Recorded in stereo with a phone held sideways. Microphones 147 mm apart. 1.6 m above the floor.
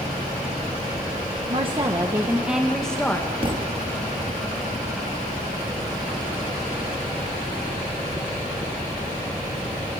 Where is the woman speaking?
40° right (ahead or behind), 1.4 m; by 3.3 s 15° left (ahead or behind), 1.8 m.